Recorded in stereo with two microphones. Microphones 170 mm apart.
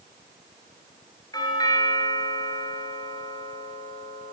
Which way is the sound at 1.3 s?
20° left (ahead or behind).